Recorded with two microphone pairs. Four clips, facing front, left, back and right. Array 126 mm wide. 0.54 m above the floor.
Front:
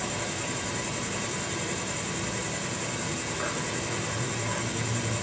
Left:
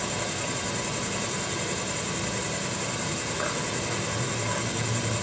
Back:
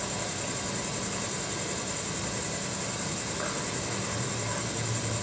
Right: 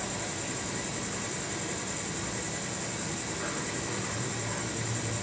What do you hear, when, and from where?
0.0 s an insect: 90° left, 1.8 m